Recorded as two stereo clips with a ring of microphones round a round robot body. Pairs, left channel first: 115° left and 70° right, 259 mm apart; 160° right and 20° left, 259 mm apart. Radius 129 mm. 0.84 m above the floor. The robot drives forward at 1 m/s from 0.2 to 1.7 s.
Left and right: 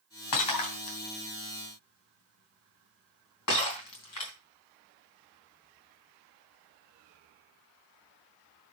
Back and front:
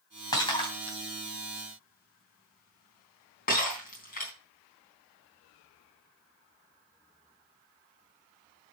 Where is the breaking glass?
125° left, 2.5 m; by 4.3 s 145° left, 3.5 m.